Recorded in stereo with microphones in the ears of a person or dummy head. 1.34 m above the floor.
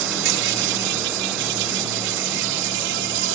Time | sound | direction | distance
0.0 | an insect | 70° right (ahead or behind) | ?